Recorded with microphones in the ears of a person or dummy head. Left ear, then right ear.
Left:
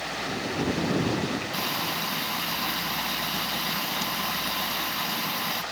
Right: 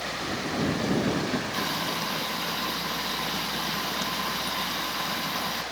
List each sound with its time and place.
1.5 s frying: centre (ahead or behind)